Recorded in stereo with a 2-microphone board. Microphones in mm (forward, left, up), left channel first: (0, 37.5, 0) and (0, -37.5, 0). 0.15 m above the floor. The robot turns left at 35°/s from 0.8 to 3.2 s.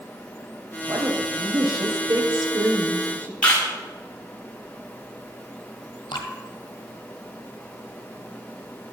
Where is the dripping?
75° left (ahead or behind), 1.8 m.